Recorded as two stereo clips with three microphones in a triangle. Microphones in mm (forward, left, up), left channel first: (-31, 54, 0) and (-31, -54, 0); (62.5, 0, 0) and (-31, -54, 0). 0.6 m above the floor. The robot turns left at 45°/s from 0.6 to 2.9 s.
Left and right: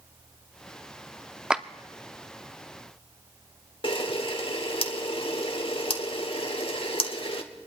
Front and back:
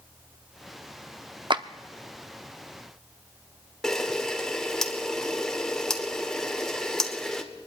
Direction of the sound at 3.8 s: 115° left.